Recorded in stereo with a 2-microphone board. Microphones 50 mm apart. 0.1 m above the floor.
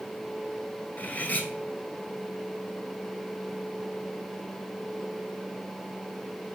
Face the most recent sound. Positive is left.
turn(degrees=35)  # may be behind; listen again after turning